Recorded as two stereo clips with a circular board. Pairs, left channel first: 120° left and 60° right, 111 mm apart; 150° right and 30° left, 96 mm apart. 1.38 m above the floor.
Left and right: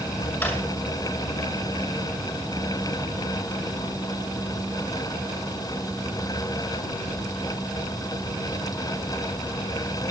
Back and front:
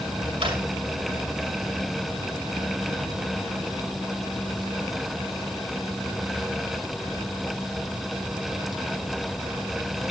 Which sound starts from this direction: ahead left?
A drawer, at 0.4 s.